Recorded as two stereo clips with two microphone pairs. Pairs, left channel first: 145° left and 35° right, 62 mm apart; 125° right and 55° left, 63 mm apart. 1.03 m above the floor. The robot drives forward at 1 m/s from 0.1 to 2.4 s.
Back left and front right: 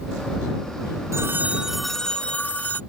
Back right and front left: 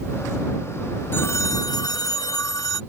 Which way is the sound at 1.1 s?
75° right.